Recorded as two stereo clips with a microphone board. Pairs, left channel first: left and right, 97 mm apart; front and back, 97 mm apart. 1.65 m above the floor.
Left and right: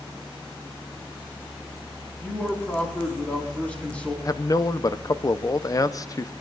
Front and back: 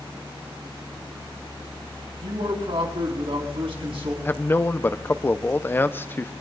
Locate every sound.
2.2 s a man speaking: 170° left, 4.5 m
4.2 s a man speaking: 60° left, 0.6 m